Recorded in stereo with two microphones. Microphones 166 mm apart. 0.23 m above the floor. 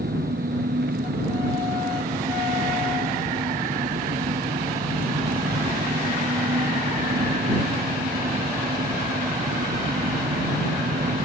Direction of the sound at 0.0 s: 80° right.